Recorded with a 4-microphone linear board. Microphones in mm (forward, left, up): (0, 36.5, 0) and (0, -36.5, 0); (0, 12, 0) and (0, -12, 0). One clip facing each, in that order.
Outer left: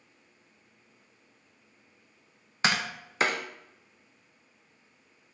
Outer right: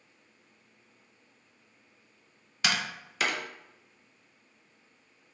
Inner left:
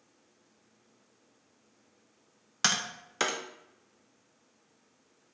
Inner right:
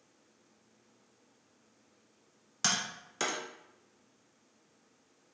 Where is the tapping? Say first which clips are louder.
Outer left 3 dB, inner left 3 dB; 35° left (ahead or behind), 0.5 m.